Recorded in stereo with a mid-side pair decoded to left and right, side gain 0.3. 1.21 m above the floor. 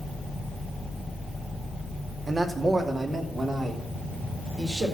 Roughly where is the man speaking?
Ahead right.